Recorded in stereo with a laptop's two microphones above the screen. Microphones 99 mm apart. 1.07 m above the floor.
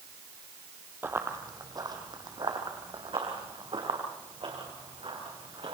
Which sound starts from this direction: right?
Running footsteps, at 1.0 s.